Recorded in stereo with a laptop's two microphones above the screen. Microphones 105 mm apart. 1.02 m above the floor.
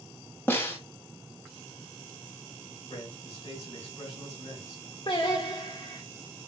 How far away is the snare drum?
About 0.9 m.